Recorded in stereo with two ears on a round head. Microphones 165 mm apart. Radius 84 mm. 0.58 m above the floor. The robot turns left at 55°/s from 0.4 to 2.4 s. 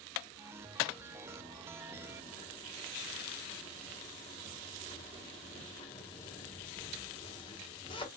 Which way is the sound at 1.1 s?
25° right (ahead or behind).